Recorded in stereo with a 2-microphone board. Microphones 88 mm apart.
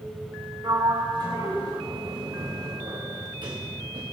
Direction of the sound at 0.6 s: 50° right (ahead or behind).